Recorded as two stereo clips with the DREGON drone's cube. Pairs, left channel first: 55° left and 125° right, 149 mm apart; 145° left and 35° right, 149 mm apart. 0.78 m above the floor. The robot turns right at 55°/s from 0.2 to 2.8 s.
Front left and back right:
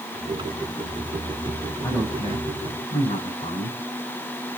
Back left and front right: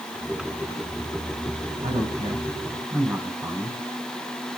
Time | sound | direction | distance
1.8 | a man speaking | 20° right | 8 m